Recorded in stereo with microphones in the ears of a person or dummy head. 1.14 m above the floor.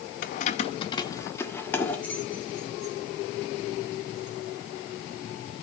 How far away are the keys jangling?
About 0.6 m.